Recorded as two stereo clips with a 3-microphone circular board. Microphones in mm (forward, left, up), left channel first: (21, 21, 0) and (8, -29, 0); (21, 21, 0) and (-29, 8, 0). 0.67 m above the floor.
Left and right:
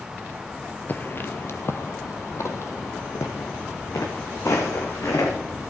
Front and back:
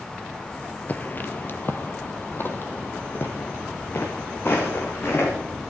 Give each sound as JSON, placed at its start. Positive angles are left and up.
{"t": 0.9, "sound": "footsteps", "azimuth_deg": 50, "distance_m": 0.8}